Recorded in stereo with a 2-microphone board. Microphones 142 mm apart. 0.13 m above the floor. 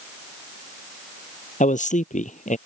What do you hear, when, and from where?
1.6 s a man speaking: 70° left (ahead or behind)